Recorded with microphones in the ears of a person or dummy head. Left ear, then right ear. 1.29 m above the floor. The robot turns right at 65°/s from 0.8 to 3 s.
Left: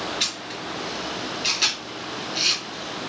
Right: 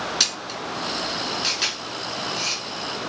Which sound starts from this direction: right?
A camera shutter, at 0.2 s.